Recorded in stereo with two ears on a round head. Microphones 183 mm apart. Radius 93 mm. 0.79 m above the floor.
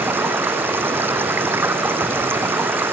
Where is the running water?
10° right (ahead or behind).